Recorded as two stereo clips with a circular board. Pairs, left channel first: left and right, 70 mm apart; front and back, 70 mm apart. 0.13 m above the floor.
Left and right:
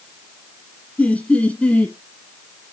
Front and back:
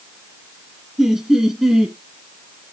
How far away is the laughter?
About 1.1 m.